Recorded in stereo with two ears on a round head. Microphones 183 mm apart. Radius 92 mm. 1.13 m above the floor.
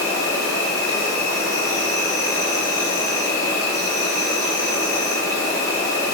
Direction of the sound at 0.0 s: 20° left (ahead or behind).